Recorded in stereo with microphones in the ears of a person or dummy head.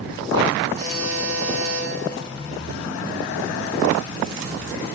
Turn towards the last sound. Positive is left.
turn(degrees=-60)  # may be behind; listen again after turning